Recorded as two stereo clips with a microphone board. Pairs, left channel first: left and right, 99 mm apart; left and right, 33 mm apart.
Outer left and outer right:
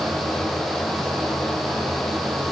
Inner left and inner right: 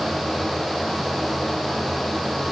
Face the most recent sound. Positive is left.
No sound to turn to.